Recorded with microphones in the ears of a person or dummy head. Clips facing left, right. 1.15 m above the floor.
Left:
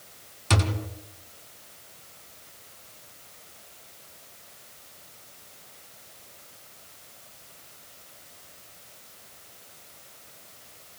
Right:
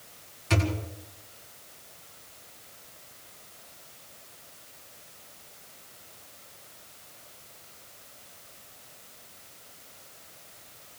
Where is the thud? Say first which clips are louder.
Even; 70° left (ahead or behind), 2.5 m.